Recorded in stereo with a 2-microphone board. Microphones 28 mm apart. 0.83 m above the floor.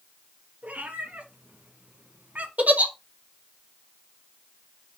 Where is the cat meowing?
80° right, 2.5 m; by 2.5 s 70° right (ahead or behind), 1.7 m.